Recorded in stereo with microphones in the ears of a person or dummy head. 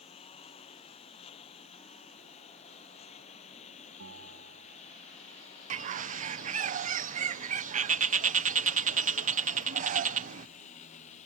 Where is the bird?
40° right (ahead or behind).